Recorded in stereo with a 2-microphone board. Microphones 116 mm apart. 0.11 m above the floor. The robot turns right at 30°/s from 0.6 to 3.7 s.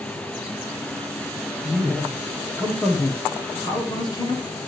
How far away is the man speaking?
About 2.5 m.